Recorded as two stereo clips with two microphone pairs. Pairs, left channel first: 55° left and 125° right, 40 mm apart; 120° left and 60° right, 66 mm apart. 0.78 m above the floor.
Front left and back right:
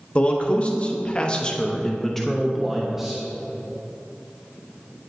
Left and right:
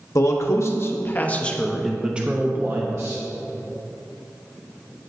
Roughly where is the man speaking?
Left.